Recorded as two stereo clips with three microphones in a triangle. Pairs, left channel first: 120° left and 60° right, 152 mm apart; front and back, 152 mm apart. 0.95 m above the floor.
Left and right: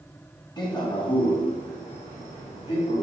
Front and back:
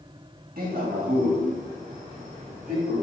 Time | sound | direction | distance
0.6 | a man speaking | straight behind | 1.2 m